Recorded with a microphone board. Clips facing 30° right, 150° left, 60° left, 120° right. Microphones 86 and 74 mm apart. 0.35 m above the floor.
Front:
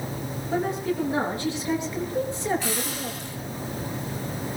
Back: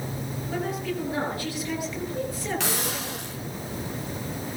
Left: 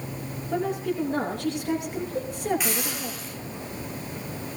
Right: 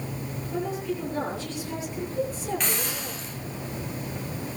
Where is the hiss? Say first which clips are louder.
Even, left 1 dB; 145° left, 9 m.